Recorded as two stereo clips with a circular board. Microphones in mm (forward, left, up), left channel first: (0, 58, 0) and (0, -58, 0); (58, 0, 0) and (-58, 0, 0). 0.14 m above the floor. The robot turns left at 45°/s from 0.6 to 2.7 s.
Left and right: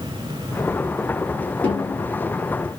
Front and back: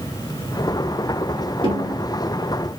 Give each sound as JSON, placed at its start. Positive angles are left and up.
{"t": 1.6, "sound": "a snare drum", "azimuth_deg": 160, "distance_m": 2.5}